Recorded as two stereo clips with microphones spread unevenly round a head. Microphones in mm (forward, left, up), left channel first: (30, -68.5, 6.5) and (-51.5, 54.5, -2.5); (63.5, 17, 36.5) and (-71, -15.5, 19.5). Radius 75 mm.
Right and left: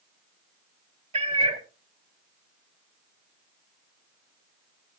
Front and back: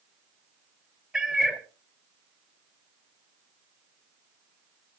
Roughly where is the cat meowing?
Left.